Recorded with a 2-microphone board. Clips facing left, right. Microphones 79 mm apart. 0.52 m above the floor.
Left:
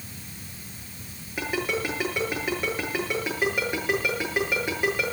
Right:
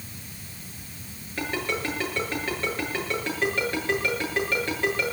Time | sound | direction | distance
1.4 | a ringtone | 10° left (ahead or behind) | 7 m